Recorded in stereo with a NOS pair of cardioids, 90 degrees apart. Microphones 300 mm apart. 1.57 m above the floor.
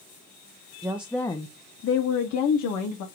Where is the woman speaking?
10° right, 0.6 m; by 3.0 s 75° left, 1.0 m.